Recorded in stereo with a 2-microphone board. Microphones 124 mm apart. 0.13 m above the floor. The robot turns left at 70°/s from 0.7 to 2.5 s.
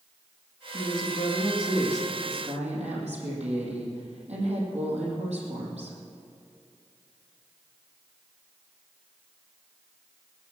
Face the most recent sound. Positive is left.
turn(degrees=-65)